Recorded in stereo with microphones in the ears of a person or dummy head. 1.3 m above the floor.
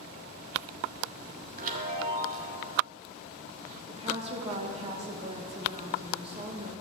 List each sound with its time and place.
1.6 s a chime: 50° right (ahead or behind), 1.4 m
3.9 s a woman speaking: 30° right (ahead or behind), 1.6 m